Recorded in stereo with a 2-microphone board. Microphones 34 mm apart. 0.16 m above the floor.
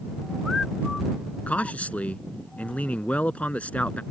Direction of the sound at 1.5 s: 45° left (ahead or behind).